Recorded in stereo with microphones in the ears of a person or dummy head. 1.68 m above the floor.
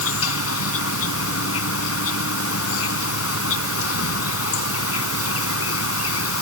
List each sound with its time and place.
0.0 s an insect: 85° left